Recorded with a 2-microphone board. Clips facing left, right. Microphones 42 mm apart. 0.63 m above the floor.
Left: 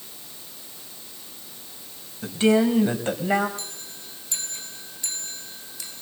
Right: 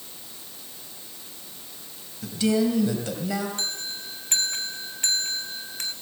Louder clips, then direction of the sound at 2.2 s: Left 4 dB; 35° left (ahead or behind).